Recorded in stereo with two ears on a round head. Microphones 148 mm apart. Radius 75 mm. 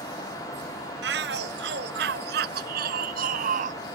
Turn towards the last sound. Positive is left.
turn(degrees=-50)  # may be behind; listen again after turning